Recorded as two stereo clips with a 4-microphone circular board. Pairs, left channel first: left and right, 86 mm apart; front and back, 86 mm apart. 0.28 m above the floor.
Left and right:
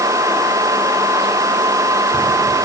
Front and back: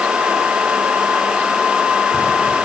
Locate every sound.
Only background noise.